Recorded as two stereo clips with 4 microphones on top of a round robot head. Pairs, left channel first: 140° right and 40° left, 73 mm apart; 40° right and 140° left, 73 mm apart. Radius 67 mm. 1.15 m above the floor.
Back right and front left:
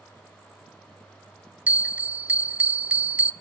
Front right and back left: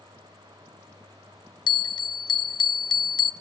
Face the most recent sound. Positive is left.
turn(degrees=-30)